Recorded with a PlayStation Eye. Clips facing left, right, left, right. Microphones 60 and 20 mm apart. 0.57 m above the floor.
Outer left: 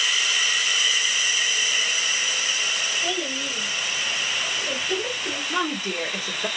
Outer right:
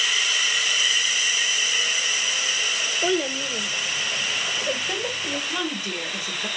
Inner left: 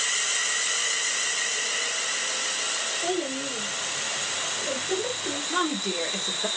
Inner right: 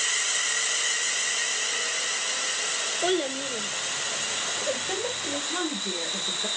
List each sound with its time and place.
3.0 s a child speaking: 45° right (ahead or behind), 1.2 m; by 5.4 s 15° right (ahead or behind), 2 m
5.5 s a woman speaking: 30° left (ahead or behind), 1.8 m